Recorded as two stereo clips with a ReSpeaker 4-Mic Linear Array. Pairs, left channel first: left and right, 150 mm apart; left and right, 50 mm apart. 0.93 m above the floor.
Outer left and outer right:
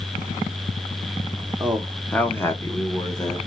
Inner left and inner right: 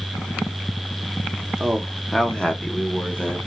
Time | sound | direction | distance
1.6 | a man speaking | 10° right (ahead or behind) | 0.8 m